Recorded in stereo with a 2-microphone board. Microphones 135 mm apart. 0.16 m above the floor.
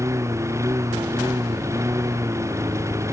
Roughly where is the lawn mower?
Right.